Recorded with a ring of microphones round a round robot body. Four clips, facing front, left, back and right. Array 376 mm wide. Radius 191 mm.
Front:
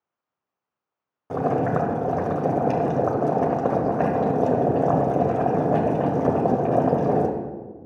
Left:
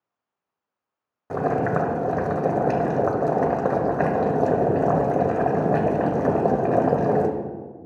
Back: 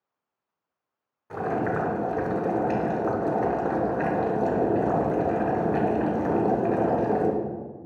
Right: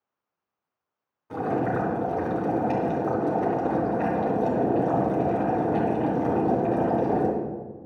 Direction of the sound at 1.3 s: 40° left.